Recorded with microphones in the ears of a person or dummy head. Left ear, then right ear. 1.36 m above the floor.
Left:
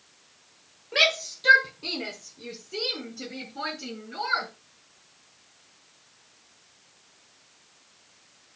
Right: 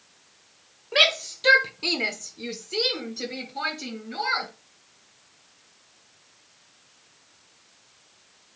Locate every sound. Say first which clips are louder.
0.9 s a shout: right 2 dB; 20° right (ahead or behind), 1.4 m; by 4.5 s 35° right (ahead or behind), 3 m